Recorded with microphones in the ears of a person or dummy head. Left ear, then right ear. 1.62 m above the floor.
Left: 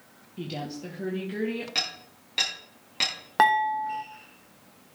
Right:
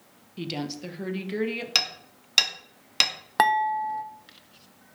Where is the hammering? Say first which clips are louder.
Right 7 dB; 60° right (ahead or behind), 3 m.